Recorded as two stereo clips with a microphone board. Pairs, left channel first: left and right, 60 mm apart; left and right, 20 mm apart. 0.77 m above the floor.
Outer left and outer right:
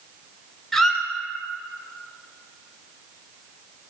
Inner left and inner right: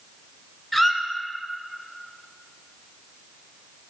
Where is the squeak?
5° left (ahead or behind), 0.6 m.